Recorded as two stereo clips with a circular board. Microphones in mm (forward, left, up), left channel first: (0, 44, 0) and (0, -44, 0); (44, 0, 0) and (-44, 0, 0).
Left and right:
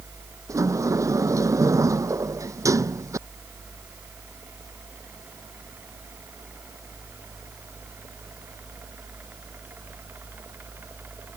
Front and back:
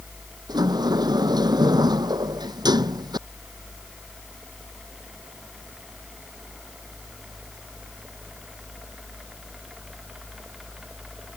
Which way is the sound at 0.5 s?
145° right.